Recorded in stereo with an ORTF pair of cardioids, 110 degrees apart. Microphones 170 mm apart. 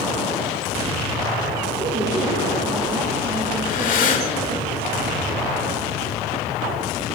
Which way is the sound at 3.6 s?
55° left.